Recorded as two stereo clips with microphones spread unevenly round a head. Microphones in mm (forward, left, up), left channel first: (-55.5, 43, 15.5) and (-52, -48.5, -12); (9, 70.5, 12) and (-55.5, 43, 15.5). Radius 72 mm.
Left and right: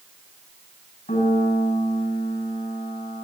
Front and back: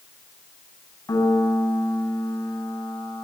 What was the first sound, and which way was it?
A piano, 60° left.